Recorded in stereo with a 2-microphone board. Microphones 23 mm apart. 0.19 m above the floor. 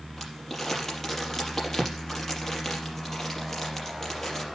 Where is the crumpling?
15° left (ahead or behind), 4.5 m.